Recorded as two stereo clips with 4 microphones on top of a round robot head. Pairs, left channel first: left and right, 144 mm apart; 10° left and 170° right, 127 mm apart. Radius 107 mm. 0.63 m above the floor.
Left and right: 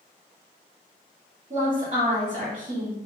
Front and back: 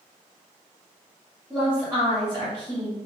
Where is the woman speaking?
110° right, 1.8 m.